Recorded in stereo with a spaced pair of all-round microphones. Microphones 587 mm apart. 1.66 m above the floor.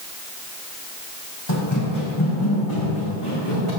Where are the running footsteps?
45° left (ahead or behind), 5 m; by 3.7 s 60° left (ahead or behind), 7.5 m.